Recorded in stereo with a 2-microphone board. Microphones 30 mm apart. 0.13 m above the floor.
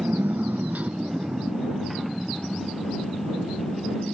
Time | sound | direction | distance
0.0 | a motorcycle | 75° right (ahead or behind) | ?